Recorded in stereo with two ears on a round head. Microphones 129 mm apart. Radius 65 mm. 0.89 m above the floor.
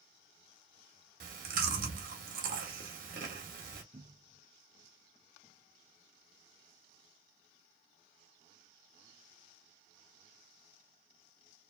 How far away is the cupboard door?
About 0.6 m.